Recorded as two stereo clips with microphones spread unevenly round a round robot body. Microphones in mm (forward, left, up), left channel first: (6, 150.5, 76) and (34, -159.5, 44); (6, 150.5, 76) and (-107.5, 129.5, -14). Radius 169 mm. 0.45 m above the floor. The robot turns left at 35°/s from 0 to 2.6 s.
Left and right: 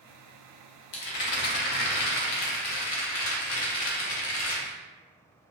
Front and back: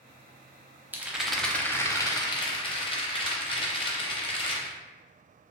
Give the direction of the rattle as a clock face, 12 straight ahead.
8 o'clock.